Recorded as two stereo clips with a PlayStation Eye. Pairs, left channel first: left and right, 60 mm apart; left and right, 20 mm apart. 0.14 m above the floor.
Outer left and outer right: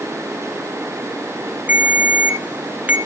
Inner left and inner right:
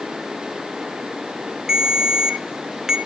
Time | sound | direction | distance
1.7 | a ringtone | 30° right (ahead or behind) | 1.2 m